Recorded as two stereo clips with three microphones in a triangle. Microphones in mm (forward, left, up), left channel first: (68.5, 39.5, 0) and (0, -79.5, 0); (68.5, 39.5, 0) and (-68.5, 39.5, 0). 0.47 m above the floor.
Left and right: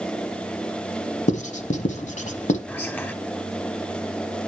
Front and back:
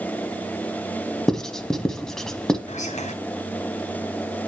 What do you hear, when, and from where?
1.3 s writing: 85° left, 0.9 m
2.7 s whispering: 15° right, 1.7 m